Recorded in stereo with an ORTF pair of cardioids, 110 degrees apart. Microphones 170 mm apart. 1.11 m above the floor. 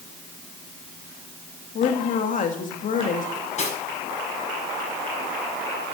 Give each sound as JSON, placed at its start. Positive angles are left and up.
{"t": 1.8, "sound": "a woman speaking", "azimuth_deg": 50, "distance_m": 2.0}
{"t": 3.4, "sound": "cutlery clinking", "azimuth_deg": 45, "distance_m": 6.5}